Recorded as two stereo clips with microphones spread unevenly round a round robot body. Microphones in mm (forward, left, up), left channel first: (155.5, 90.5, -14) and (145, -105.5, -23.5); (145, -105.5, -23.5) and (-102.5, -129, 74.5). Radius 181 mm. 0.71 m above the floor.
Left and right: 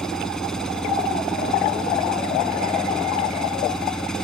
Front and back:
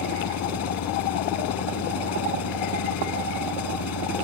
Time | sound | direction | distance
0.0 | an engine running | straight ahead | ?